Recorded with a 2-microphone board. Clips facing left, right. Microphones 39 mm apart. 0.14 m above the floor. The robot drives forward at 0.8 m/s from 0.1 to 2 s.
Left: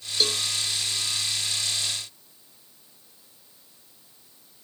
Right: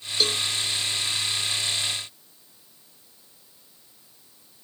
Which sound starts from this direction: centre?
A cowbell, at 0.2 s.